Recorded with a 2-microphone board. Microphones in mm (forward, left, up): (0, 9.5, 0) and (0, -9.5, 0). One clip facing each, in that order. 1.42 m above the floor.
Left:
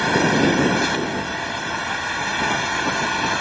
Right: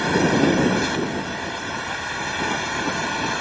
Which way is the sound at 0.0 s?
15° left (ahead or behind).